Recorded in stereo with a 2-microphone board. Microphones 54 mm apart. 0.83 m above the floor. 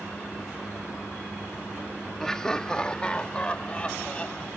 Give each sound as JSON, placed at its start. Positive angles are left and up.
{"t": 2.2, "sound": "laughter", "side_deg": 10}